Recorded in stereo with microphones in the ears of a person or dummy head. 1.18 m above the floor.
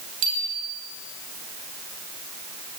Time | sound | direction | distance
0.2 | a bicycle bell | 70° right (ahead or behind) | 6 m